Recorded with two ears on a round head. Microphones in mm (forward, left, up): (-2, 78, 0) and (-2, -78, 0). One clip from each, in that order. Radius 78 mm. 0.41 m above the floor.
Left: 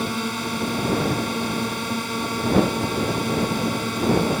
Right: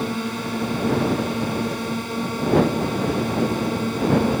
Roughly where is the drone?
Left.